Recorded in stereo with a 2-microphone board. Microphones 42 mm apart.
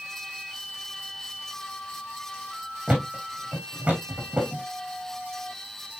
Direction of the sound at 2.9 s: 25° right (ahead or behind).